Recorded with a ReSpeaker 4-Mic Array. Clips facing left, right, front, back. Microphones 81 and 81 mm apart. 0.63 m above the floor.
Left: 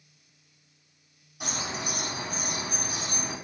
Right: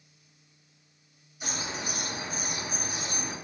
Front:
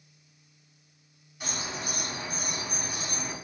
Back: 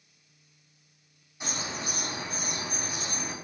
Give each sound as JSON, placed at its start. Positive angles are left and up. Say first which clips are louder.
{"t": 1.4, "sound": "a bird", "louder": "left 2 dB, even", "azimuth_deg": 110, "distance_m": 3.5}